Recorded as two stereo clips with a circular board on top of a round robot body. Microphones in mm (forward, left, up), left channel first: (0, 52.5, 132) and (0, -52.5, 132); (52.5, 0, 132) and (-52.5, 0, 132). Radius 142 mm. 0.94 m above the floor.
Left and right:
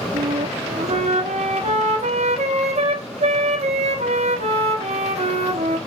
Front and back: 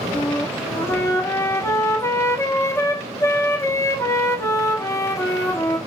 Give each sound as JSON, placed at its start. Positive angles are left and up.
{"t": 0.1, "sound": "a flute", "azimuth_deg": -65, "distance_m": 1.1}